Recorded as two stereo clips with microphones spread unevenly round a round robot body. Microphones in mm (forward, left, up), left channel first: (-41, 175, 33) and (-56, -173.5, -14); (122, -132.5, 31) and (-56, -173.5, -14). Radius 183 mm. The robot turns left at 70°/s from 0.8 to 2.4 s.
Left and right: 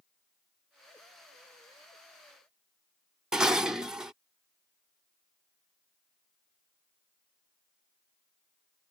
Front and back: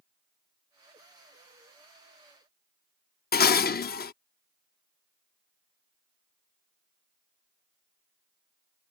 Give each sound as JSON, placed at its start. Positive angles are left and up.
{"t": 3.3, "sound": "dishes clattering", "azimuth_deg": -15}